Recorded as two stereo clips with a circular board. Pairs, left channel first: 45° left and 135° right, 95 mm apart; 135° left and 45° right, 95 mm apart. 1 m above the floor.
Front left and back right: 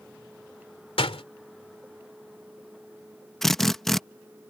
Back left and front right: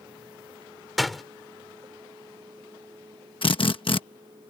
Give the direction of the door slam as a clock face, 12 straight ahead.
10 o'clock.